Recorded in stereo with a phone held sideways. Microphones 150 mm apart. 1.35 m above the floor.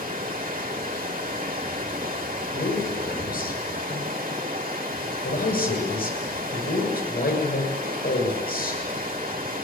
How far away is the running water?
About 3 m.